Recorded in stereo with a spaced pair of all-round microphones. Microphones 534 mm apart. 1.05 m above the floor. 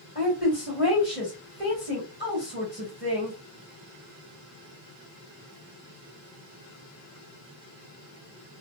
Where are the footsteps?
I don't hear footsteps.